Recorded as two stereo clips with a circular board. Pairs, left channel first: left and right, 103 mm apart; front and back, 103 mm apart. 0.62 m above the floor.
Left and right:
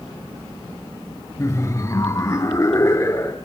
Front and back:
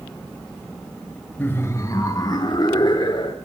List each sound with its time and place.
1.4 s laughter: 55° left, 0.8 m; by 3.4 s 35° left, 1.7 m